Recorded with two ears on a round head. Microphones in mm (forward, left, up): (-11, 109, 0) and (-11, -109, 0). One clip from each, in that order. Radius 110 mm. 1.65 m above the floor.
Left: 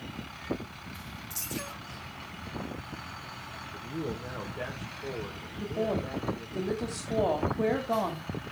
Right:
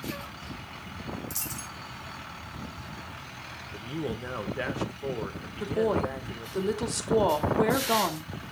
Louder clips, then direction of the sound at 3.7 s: Right 2 dB; 65° right (ahead or behind).